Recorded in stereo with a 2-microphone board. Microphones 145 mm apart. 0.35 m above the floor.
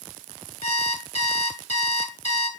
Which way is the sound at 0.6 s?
50° left (ahead or behind).